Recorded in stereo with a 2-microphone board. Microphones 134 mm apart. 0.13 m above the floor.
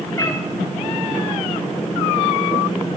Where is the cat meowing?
25° left (ahead or behind), 4 m.